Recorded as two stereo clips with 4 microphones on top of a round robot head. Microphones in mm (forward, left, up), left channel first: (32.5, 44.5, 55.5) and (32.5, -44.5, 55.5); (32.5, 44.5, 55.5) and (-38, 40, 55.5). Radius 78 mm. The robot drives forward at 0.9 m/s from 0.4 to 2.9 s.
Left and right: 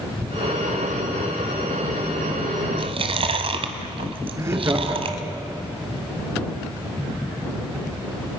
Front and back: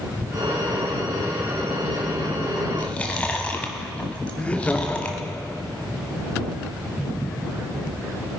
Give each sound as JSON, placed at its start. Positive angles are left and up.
{"t": 2.8, "sound": "chewing", "azimuth_deg": -70, "distance_m": 1.5}
{"t": 4.4, "sound": "laughter", "azimuth_deg": -60, "distance_m": 1.6}